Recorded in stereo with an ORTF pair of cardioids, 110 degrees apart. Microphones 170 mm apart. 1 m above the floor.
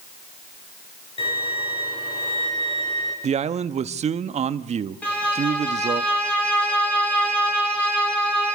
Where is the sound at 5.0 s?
10° left, 10 m.